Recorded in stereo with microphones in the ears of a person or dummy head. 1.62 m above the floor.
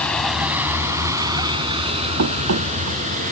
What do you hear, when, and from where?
0.0 s a vehicle: 5° left (ahead or behind); by 3.3 s 40° right (ahead or behind)
2.2 s running footsteps: 55° right (ahead or behind); by 3.2 s 60° right (ahead or behind)